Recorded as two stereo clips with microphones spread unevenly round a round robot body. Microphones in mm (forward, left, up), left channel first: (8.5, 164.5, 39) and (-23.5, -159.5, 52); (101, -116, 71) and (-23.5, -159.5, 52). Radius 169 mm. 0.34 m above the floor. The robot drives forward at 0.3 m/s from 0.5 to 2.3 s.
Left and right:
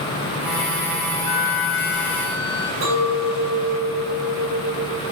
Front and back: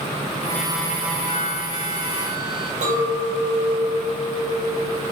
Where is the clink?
140° right, 7 m.